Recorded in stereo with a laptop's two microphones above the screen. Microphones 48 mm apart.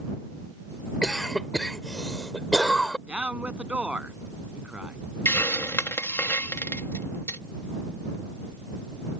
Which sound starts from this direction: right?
A man speaking, at 3.1 s.